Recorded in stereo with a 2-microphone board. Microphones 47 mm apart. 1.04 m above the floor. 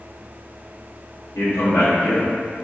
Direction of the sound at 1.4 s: 65° left (ahead or behind).